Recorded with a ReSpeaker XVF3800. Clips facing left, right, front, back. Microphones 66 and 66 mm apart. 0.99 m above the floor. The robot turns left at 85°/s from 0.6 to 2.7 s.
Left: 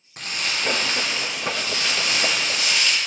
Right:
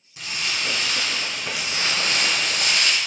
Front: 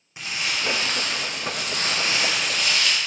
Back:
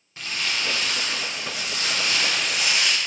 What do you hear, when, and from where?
0.2 s crumpling: 70° left, 0.6 m; by 3.0 s 110° right, 0.6 m